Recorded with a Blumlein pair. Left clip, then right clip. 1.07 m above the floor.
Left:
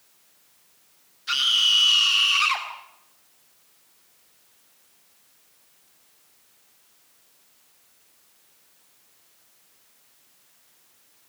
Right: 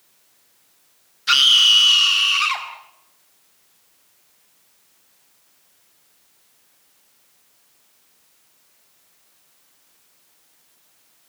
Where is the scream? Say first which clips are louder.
Right 7 dB; 25° right, 2 m; by 2.7 s straight ahead, 2.5 m.